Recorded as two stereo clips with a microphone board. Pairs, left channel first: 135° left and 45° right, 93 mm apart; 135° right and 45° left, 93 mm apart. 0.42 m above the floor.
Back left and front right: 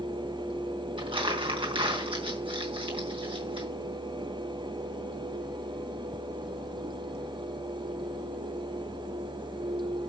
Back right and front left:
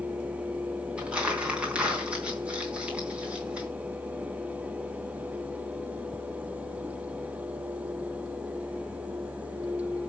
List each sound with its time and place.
1.0 s crumpling: 35° right, 3.5 m